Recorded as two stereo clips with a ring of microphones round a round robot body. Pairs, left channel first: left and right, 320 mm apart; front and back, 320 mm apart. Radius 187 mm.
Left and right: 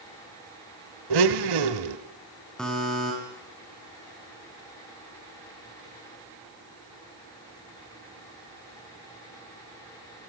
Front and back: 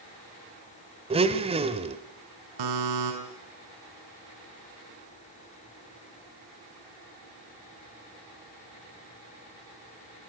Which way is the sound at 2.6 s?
Straight behind.